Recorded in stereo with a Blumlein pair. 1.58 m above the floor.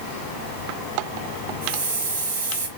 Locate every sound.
1.6 s a hiss: 55° right, 2.5 m